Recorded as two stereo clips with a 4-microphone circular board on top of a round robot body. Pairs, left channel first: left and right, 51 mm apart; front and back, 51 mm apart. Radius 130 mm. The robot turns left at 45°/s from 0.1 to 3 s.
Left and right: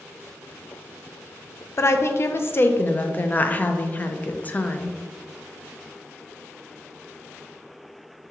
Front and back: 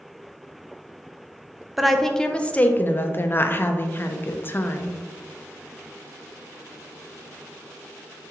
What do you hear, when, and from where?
1.8 s a woman speaking: 95° left, 0.5 m; by 5.0 s 40° left, 0.5 m